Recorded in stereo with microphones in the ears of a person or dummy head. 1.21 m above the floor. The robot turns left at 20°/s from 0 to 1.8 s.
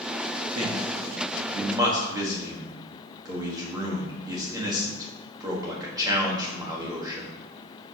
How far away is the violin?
I don't hear a violin.